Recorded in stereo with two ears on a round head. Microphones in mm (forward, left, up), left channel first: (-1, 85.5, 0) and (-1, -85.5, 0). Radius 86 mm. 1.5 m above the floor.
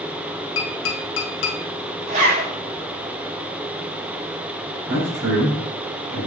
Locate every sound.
0.6 s tapping: 75° left (ahead or behind), 1.5 m
2.1 s a zipper: 45° right (ahead or behind), 4 m
4.9 s a man speaking: 65° right (ahead or behind), 4 m